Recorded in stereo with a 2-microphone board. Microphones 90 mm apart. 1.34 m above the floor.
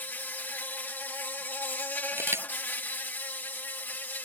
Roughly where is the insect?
Left.